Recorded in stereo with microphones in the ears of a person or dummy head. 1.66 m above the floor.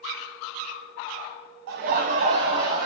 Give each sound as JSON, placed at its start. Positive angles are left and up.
{"t": 1.7, "sound": "laughter", "side_deg": -55, "distance_m": 0.6}